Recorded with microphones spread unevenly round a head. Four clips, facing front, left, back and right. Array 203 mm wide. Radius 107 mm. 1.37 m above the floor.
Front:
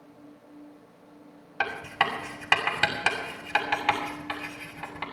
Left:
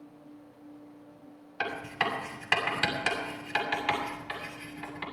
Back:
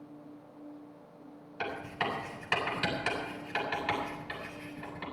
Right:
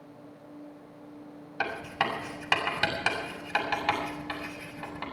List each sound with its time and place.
1.6 s writing: 25° right, 7 m